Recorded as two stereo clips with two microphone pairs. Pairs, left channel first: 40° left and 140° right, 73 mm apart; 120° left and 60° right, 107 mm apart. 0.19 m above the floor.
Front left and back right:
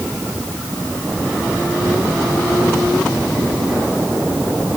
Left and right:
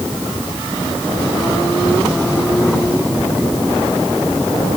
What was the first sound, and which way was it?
Only background noise.